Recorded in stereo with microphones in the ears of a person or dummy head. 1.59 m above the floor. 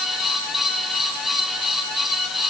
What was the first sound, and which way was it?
Only background noise.